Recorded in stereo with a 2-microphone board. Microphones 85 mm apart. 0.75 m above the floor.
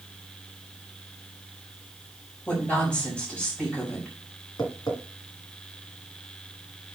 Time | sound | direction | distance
2.5 | a woman speaking | 15° left (ahead or behind) | 4 m
4.6 | tapping | 55° left (ahead or behind) | 2 m